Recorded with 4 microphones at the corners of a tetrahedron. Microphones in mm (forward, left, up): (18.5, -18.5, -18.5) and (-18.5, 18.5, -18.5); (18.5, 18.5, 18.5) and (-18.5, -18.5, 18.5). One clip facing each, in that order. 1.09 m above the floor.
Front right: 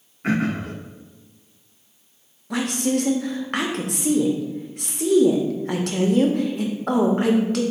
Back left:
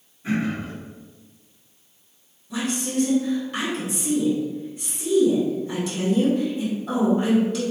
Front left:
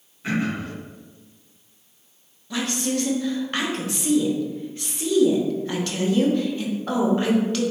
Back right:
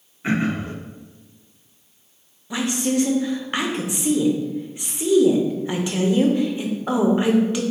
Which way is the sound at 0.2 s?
70° right.